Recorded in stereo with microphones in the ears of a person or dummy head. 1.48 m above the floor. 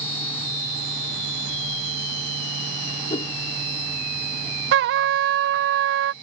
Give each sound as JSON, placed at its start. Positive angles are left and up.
{"t": 3.1, "sound": "a whoosh", "side_deg": 25}
{"t": 4.7, "sound": "a trumpet", "side_deg": -65}